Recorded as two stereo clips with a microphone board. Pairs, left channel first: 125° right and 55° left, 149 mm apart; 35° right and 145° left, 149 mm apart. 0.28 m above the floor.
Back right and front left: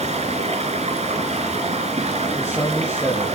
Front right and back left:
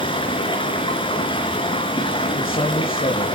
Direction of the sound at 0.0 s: 20° left.